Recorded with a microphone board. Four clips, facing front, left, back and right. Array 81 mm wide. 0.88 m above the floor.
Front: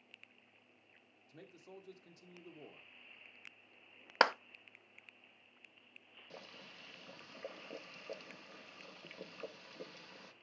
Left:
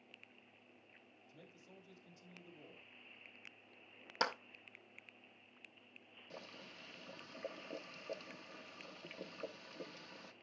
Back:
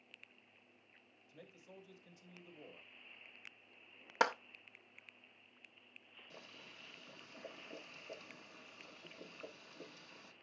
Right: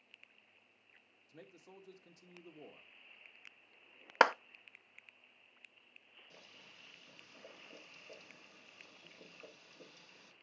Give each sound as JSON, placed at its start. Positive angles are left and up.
{"t": 1.3, "sound": "a man speaking", "azimuth_deg": -50, "distance_m": 1.7}
{"t": 4.2, "sound": "a clap", "azimuth_deg": -70, "distance_m": 0.5}
{"t": 6.3, "sound": "boiling", "azimuth_deg": 50, "distance_m": 1.5}